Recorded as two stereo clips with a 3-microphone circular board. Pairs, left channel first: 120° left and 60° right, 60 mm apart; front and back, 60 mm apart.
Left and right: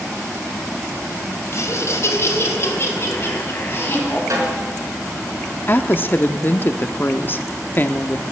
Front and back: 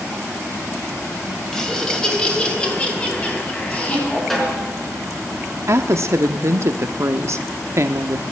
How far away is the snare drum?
About 4.5 m.